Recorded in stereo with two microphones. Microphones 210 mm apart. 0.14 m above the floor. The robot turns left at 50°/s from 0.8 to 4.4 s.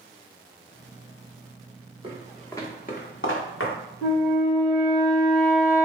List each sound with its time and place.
2.0 s footsteps: 25° right (ahead or behind), 1.0 m; by 3.8 s 70° left (ahead or behind), 1.0 m
4.0 s a flute: 30° left (ahead or behind), 1.3 m; by 5.9 s 15° left (ahead or behind), 1.3 m